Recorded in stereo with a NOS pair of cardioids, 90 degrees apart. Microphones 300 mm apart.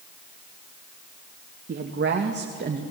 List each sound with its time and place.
1.7 s a woman speaking: 40° right, 2.5 m; by 2.8 s 35° right, 2 m